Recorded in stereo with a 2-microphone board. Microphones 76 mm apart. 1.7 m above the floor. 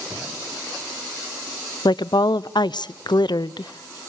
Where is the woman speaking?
75° left (ahead or behind), 0.7 m.